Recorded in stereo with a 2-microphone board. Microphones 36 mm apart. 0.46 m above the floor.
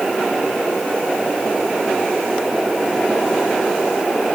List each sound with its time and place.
Only background noise.